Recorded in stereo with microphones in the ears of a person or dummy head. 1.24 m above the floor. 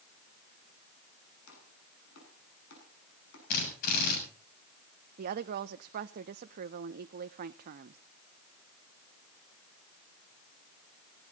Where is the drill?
50° left (ahead or behind), 8 m.